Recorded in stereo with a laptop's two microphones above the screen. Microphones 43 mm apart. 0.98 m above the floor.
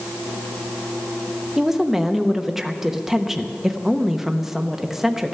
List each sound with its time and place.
1.6 s a woman speaking: 5° right (ahead or behind), 0.9 m